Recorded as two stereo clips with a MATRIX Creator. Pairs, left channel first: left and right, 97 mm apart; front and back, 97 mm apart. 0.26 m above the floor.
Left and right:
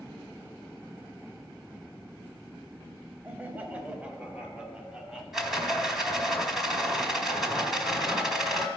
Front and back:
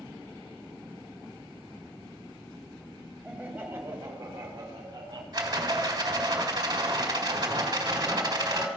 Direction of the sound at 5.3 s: 175° right.